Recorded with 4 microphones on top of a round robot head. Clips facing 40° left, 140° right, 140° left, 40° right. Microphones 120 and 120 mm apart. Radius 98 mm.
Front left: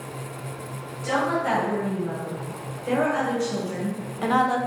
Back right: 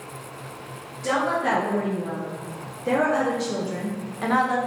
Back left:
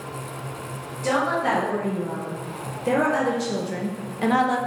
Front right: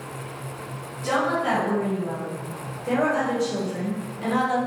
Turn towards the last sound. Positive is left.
turn(degrees=105)